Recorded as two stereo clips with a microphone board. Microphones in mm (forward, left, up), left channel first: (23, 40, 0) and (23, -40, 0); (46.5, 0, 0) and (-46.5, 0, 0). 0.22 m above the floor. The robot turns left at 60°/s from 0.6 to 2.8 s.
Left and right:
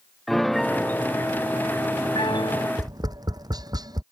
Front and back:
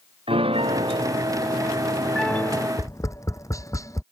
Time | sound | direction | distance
0.3 | a piano | straight behind | ?
2.8 | tapping | 55° right | ?